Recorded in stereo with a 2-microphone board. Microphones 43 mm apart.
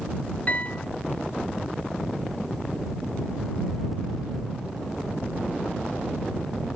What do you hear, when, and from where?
0.5 s a piano: 35° left (ahead or behind)